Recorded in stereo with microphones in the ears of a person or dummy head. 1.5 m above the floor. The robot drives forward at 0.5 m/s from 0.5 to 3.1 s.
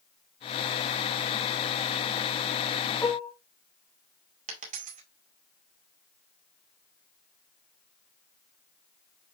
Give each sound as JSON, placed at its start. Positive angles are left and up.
{"t": 3.0, "sound": "dishes clattering", "side_deg": 10, "distance_m": 1.3}
{"t": 4.5, "sound": "a dropped coin", "side_deg": -40, "distance_m": 2.5}